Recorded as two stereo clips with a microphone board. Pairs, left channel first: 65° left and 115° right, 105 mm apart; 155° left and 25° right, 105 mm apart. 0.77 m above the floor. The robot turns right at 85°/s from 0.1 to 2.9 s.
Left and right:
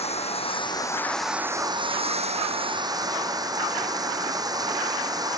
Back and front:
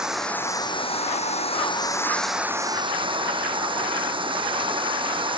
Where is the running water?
60° left; by 5.4 s 60° right.